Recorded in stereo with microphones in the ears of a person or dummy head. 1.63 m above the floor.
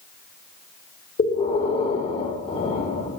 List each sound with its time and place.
1.2 s breathing: 35° left (ahead or behind), 3 m